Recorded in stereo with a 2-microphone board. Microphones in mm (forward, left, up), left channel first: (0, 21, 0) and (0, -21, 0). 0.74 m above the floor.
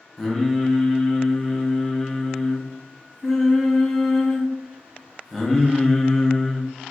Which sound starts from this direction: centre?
Singing, at 0.2 s.